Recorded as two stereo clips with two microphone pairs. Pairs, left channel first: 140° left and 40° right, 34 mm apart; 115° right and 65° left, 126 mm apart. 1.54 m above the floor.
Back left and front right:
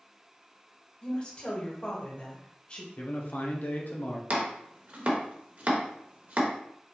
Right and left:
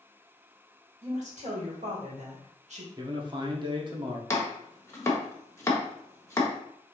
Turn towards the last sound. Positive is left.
turn(degrees=-55)